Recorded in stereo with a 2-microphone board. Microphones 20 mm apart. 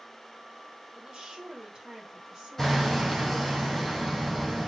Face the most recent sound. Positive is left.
turn(degrees=15)  # may be behind; listen again after turning